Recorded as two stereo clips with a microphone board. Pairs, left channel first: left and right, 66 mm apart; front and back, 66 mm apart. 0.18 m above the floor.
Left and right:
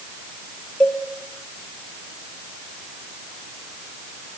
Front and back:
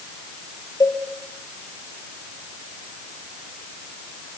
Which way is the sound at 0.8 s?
15° left.